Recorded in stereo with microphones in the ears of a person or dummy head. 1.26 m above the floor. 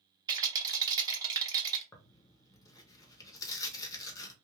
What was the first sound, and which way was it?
A rattle, 25° right (ahead or behind).